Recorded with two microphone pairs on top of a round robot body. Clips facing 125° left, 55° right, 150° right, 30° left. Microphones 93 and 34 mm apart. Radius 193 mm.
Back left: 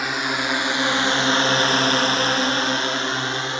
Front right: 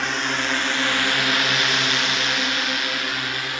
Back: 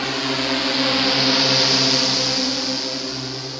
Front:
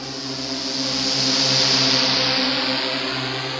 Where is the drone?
155° right; by 3.6 s 65° left.